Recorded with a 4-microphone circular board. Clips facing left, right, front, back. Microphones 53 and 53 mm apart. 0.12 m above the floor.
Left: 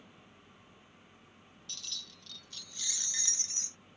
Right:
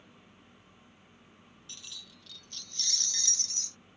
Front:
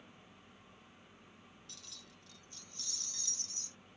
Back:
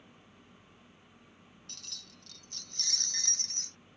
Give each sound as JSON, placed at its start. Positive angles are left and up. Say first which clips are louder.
{"t": 1.7, "sound": "keys jangling", "louder": "left 2 dB, back 3 dB", "azimuth_deg": -160}